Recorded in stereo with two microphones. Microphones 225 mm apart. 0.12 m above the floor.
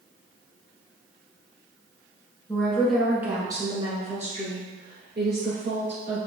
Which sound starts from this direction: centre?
A woman speaking, at 2.5 s.